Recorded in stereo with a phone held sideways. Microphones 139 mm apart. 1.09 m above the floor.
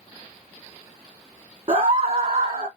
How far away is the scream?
About 0.7 m.